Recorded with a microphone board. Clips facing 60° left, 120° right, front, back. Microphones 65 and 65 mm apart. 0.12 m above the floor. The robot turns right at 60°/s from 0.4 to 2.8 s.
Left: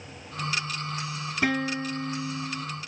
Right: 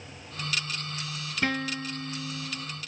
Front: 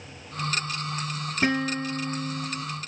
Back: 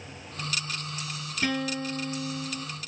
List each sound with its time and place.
1.4 s a guitar: 15° right, 1.1 m; by 2.7 s 60° left, 1.1 m